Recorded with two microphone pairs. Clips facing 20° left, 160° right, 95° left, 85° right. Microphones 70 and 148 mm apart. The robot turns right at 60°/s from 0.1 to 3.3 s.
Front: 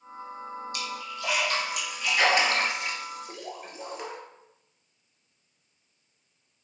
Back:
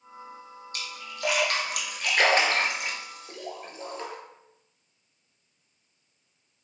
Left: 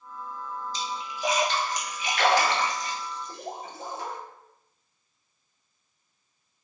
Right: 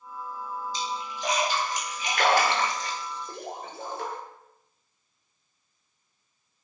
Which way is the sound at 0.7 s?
145° left.